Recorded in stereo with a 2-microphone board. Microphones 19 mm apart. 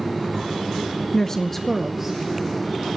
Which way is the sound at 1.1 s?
30° left (ahead or behind).